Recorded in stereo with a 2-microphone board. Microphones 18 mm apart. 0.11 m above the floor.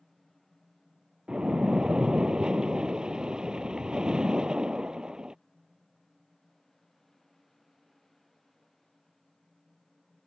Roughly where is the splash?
Right.